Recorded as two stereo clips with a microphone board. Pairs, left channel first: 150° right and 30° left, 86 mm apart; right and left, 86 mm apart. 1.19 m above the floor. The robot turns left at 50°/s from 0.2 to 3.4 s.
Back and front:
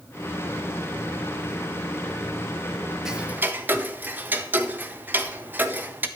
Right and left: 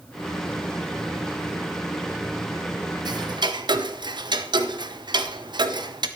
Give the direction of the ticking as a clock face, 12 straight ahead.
8 o'clock.